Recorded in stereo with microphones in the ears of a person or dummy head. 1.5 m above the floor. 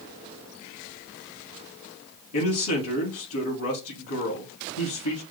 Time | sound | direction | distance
2.3 | a man speaking | 85° left | 3.5 m